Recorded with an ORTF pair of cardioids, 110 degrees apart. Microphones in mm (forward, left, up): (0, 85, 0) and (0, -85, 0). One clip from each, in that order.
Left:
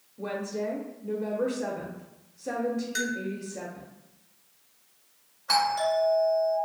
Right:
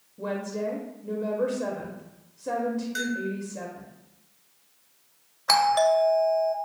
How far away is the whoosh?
I don't hear a whoosh.